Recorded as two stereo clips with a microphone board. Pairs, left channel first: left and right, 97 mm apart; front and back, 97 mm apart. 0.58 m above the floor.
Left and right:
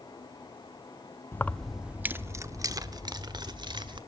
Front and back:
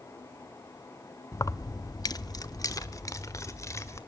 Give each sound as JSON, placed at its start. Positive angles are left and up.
{"t": 1.3, "sound": "keys jangling", "azimuth_deg": 40, "distance_m": 0.6}